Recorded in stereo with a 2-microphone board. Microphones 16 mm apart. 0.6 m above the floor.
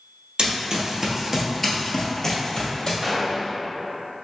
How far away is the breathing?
No breathing in this recording.